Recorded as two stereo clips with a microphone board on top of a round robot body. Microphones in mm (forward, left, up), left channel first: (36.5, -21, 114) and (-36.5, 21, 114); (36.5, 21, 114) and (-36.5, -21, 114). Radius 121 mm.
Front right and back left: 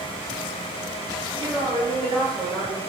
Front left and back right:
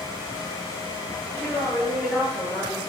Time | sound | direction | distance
1.4 | a woman speaking | 115° left | 8.5 m